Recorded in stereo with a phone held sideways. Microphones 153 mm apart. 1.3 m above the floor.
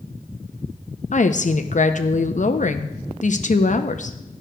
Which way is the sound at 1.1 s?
55° left (ahead or behind).